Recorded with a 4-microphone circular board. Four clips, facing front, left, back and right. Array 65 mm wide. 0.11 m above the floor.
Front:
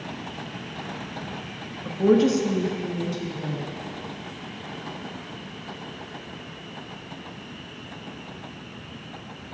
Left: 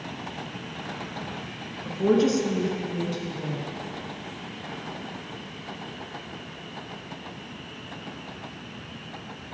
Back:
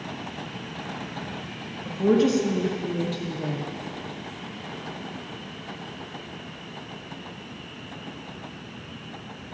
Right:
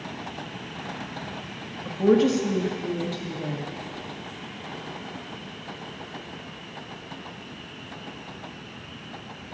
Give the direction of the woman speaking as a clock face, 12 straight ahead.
1 o'clock.